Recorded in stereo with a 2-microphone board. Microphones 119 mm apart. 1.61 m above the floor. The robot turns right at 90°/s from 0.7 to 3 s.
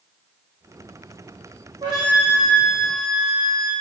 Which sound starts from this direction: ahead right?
A flute, at 1.8 s.